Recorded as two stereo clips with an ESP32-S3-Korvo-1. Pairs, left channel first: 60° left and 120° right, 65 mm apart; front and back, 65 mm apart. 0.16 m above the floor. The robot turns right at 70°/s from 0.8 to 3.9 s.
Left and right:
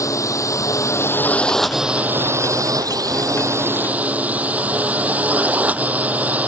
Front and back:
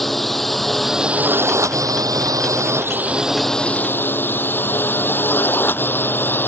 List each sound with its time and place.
0.0 s a drone: 85° left; by 6.5 s 55° right